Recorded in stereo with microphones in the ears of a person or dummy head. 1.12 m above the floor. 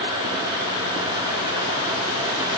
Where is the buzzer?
I don't hear a buzzer.